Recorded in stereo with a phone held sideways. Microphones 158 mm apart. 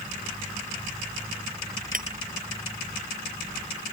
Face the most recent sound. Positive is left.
turn(degrees=-60)  # may be behind; listen again after turning